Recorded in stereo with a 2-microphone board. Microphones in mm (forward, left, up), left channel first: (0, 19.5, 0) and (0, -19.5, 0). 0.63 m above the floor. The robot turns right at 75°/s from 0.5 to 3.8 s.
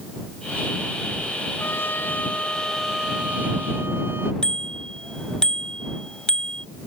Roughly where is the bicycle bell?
Left.